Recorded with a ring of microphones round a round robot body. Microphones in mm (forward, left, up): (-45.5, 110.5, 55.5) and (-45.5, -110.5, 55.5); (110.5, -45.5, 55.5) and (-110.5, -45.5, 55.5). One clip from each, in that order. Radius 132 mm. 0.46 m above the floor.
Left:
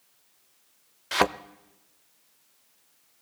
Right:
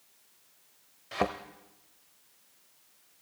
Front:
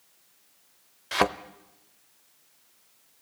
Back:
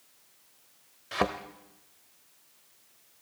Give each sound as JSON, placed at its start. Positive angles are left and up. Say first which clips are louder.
{"t": 1.1, "sound": "a thud", "louder": "left 7 dB, front 5 dB", "azimuth_deg": 65, "distance_m": 0.6}